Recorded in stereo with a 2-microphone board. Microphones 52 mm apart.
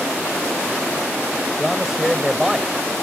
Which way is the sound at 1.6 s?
5° right (ahead or behind).